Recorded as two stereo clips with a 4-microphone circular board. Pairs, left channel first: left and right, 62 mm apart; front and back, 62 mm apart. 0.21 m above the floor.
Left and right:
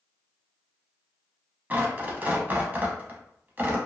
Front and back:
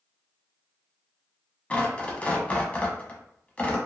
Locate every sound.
1.7 s tearing paper: 50° right, 0.6 m